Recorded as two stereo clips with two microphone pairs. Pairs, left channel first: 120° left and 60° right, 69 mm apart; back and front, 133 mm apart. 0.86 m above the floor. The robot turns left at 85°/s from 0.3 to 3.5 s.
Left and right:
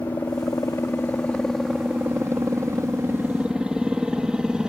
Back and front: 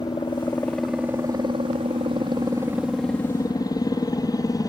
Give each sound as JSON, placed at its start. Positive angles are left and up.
{"t": 0.0, "sound": "a helicopter", "azimuth_deg": 135}